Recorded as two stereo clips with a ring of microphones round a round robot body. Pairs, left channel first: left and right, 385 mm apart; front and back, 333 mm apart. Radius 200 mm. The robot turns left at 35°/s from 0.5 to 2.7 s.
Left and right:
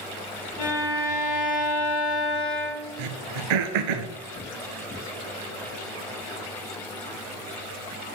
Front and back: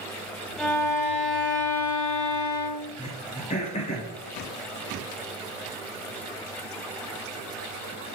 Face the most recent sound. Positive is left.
turn(degrees=-75)